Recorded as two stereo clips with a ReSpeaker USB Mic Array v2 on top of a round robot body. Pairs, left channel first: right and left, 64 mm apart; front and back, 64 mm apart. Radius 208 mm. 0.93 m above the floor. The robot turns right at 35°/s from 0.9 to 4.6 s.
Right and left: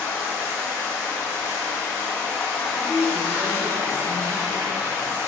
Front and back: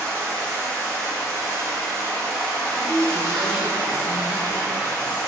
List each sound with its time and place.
0.0 s running water: 65° right, 1.2 m; by 5.3 s 65° left, 1.2 m
2.8 s a woman speaking: 55° left, 0.9 m; by 5.2 s 115° left, 0.9 m